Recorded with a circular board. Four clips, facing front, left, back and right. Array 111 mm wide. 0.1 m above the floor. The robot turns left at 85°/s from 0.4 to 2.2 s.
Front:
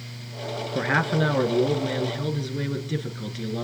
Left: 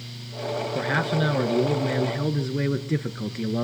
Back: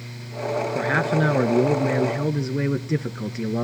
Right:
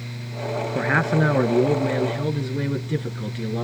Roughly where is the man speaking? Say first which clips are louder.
Right 5 dB, front 1 dB; right.